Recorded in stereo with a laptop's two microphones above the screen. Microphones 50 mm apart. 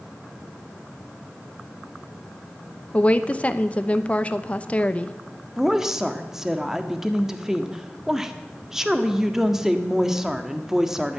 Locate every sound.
2.9 s a woman speaking: 30° left (ahead or behind), 0.8 m
5.6 s a woman speaking: 10° right (ahead or behind), 1.5 m